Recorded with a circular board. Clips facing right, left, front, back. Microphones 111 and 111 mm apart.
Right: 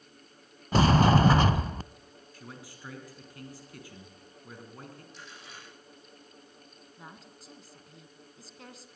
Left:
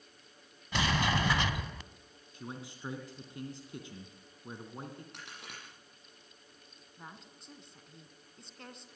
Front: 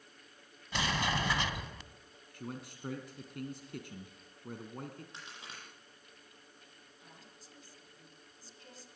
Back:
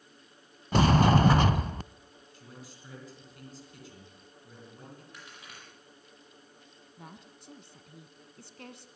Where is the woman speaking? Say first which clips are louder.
Right 1 dB, back 9 dB; straight behind, 2.5 m.